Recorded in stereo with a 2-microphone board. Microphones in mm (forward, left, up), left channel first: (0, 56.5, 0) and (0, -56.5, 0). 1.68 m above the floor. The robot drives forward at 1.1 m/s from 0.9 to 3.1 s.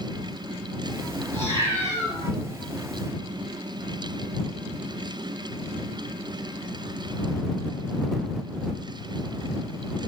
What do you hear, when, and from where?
1.3 s a cat meowing: 20° left (ahead or behind), 5.5 m; by 2.2 s 25° left (ahead or behind), 4.5 m